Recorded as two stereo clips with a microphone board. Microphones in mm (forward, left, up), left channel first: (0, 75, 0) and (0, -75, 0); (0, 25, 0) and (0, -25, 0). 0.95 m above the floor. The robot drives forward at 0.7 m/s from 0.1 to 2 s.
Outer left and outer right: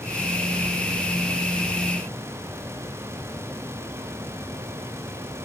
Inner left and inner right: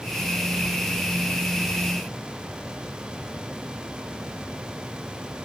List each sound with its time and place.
Only background noise.